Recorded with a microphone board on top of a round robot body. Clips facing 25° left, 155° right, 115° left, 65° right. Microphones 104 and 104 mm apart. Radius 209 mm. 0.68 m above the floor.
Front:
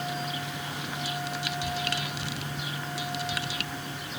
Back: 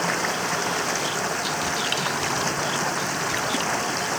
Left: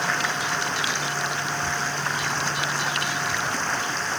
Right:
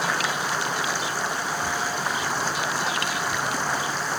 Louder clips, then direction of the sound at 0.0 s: Back 8 dB, right 1 dB; 145° right.